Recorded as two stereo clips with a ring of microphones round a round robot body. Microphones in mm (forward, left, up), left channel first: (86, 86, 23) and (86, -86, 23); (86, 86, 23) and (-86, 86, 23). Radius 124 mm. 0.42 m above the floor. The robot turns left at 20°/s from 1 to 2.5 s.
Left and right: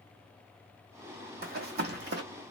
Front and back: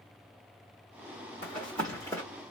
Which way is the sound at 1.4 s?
65° right.